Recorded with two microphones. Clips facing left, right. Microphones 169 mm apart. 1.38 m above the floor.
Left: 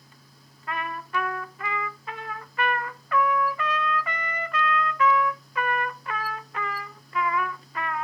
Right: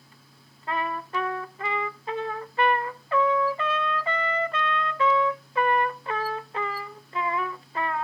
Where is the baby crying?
No baby crying in this recording.